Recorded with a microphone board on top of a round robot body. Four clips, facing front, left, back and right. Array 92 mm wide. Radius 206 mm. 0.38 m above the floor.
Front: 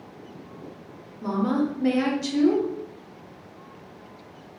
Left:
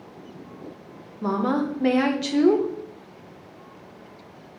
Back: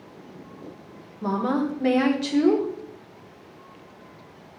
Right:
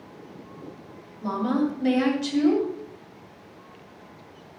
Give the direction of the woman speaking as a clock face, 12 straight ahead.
8 o'clock.